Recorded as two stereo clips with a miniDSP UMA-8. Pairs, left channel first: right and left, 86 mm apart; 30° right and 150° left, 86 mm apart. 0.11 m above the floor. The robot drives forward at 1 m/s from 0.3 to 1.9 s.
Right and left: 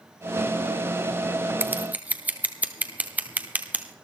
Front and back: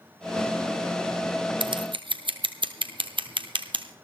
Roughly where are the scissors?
Behind left.